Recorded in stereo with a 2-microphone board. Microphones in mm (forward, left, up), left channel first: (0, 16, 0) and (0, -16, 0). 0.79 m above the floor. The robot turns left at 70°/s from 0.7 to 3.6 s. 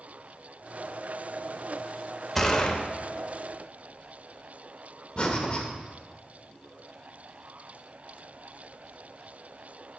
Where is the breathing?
30° left (ahead or behind), 1.1 m.